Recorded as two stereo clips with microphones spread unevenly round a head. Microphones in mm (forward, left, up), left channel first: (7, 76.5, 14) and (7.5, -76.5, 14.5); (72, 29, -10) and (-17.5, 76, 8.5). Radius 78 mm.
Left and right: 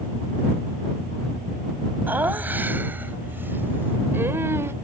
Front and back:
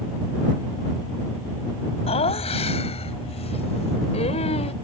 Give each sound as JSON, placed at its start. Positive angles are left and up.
{"t": 2.1, "sound": "laughter", "azimuth_deg": -10}